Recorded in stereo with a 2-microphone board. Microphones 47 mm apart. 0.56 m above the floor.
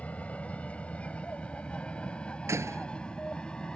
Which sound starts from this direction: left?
An aircraft, at 0.0 s.